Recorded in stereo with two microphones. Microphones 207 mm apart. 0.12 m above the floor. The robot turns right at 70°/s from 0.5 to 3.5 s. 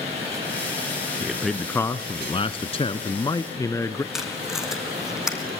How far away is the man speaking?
About 1.1 m.